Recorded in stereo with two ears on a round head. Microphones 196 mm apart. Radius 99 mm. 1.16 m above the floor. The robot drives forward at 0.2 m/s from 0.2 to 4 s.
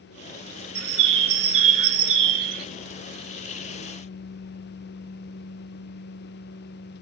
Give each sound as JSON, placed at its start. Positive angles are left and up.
{"t": 0.8, "sound": "a bird", "side_deg": -70, "distance_m": 1.8}